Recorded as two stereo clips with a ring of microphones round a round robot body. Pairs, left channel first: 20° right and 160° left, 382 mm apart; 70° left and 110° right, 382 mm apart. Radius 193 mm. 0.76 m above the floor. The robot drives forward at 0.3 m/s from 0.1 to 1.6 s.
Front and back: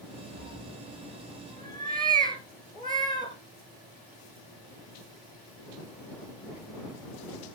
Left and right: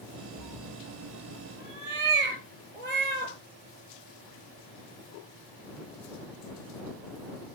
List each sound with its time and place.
0.4 s a cat meowing: 120° right, 4 m